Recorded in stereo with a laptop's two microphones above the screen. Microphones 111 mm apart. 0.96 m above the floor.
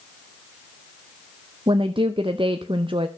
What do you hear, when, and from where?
1.7 s a woman speaking: 55° right (ahead or behind), 0.6 m